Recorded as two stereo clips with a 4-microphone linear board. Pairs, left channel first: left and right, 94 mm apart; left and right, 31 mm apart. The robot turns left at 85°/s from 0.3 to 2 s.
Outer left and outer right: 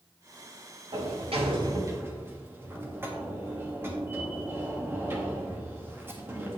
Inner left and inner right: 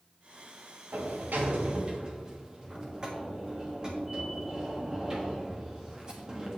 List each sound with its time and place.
0.9 s a sliding door: 65° right, 1.7 m; by 6.6 s 155° right, 1.7 m